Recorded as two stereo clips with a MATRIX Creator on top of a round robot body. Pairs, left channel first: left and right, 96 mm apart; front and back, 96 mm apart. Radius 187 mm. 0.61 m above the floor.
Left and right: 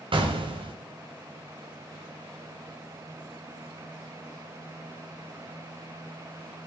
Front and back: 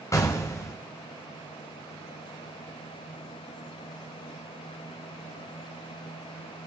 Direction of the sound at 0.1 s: 60° right.